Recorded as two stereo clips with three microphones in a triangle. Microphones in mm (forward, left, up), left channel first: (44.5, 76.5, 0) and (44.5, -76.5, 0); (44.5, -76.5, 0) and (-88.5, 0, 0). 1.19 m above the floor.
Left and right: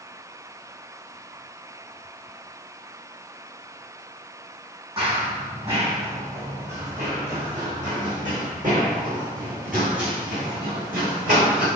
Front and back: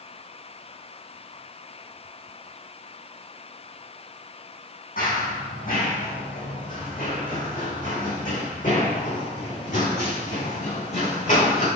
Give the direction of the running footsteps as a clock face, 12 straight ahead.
1 o'clock.